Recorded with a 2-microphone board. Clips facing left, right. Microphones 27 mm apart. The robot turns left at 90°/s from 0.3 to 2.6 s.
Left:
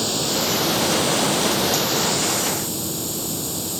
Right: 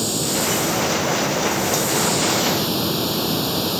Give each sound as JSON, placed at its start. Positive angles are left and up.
{"t": 0.0, "sound": "running water", "azimuth_deg": 170}